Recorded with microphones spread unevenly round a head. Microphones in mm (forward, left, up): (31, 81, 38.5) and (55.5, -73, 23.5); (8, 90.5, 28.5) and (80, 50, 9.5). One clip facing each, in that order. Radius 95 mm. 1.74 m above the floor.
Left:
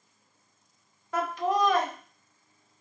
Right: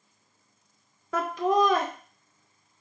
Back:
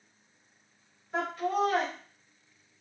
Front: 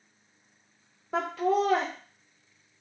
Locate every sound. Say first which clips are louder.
1.1 s laughter: right 3 dB, front 4 dB; 95° right, 0.8 m